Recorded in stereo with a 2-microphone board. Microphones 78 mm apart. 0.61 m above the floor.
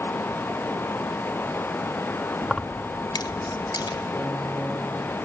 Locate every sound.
2.4 s keys jangling: 15° right (ahead or behind), 0.6 m; by 4.1 s 65° left (ahead or behind), 2.5 m
4.2 s a piano: 10° left (ahead or behind), 5 m